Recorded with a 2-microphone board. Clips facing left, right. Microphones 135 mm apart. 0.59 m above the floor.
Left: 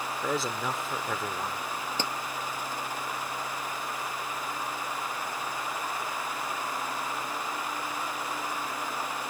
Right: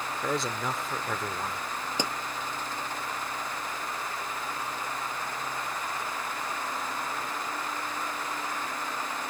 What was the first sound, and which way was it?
A man speaking, centre (ahead or behind).